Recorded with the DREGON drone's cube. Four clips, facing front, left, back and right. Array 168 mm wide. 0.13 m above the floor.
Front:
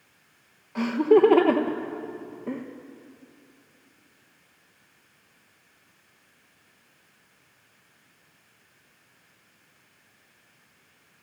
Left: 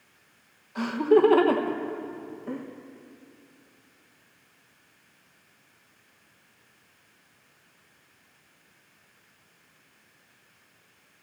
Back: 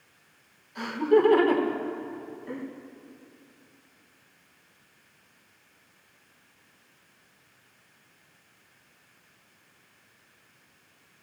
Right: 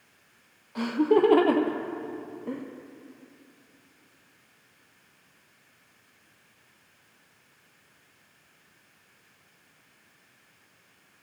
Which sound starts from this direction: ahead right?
Laughter, at 0.8 s.